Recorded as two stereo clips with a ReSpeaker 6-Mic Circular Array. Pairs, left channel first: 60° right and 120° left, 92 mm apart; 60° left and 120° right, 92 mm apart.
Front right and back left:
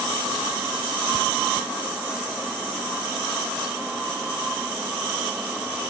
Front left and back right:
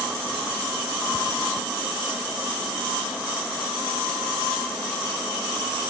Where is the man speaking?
No man speaking in this recording.